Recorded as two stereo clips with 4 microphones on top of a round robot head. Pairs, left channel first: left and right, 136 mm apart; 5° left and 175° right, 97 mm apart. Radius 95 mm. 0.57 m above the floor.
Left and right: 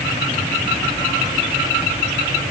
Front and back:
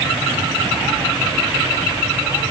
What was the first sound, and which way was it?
Only background noise.